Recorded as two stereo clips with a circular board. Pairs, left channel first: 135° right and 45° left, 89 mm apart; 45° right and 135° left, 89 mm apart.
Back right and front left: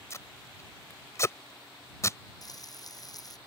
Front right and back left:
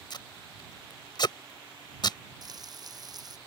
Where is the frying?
Straight behind.